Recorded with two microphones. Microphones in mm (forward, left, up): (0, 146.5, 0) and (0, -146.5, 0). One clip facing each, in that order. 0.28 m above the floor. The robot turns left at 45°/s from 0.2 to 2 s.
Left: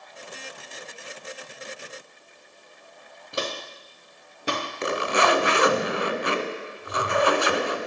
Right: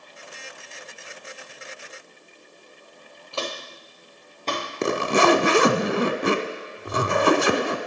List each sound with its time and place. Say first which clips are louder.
3.3 s footsteps: left 1 dB; 20° left (ahead or behind), 1.8 m; by 5.6 s 5° left (ahead or behind), 4 m
4.8 s a zipper: right 5 dB; 55° right (ahead or behind), 0.6 m